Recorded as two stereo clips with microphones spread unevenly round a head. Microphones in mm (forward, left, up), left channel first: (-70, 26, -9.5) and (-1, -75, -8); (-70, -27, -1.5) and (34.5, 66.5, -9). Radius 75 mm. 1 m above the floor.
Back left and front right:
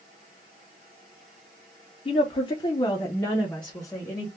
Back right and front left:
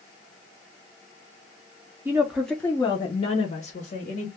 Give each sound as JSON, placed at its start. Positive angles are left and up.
{"t": 2.0, "sound": "a woman speaking", "azimuth_deg": 100, "distance_m": 0.7}